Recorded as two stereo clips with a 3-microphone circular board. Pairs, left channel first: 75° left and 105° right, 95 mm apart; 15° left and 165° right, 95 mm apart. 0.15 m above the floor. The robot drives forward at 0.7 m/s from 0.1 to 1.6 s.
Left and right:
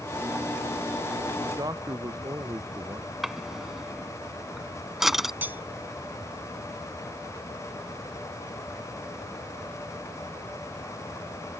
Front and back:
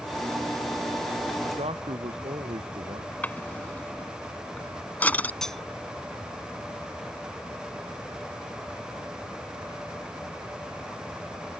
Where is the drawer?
25° right.